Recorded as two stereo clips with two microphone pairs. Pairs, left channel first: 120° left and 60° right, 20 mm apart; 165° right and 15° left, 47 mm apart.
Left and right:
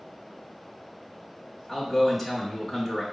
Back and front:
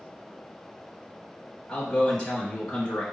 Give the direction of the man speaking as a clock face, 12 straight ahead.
5 o'clock.